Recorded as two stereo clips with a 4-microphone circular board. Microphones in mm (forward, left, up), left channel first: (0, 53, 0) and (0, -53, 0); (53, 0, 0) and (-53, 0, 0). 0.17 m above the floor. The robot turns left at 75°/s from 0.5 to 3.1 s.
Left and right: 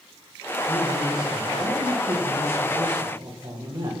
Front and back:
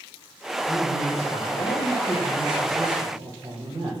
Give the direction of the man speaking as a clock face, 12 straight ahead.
11 o'clock.